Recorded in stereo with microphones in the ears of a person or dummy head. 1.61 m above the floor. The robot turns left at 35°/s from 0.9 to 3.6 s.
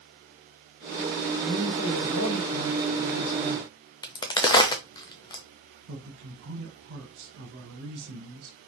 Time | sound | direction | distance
1.4 | a man speaking | 130° left | 1.3 m
4.0 | a crack | 20° left (ahead or behind) | 0.6 m
5.9 | a man speaking | 80° right | 1.8 m